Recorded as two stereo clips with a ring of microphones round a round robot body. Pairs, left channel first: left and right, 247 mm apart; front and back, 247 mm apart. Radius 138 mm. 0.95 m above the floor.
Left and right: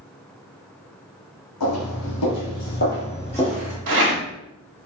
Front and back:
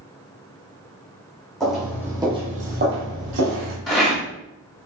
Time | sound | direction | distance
1.6 | footsteps | 90° left | 2.5 m
3.9 | a rattle | 90° right | 1.5 m